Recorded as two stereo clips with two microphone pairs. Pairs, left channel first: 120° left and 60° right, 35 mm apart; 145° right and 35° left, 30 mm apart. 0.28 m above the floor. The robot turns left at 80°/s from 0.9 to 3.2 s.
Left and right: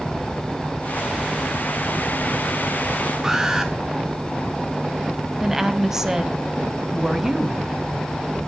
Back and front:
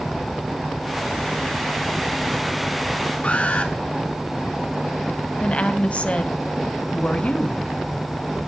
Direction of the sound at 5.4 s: 135° right.